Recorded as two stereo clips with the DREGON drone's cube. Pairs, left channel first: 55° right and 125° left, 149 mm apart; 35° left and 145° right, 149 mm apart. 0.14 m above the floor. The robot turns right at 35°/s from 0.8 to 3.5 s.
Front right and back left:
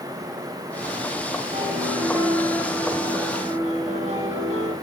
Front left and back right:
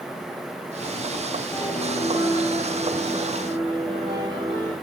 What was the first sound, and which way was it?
A piano, 95° left.